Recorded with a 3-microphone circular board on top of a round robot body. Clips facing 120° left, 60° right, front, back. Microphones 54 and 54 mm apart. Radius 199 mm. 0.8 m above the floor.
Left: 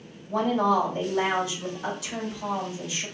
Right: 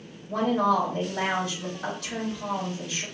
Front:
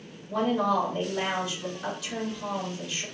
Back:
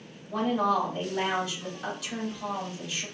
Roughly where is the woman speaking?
Right.